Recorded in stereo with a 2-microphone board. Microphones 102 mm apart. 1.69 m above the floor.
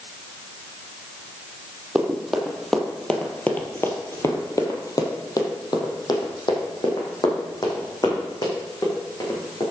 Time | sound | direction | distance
1.9 | running footsteps | 5° right (ahead or behind) | 2.5 m